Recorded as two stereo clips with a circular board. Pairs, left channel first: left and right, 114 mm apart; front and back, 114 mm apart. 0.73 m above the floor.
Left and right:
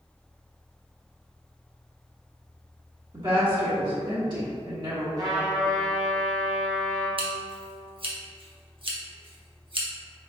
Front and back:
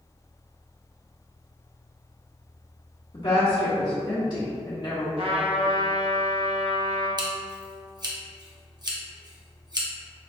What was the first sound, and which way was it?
A woman speaking, 45° right.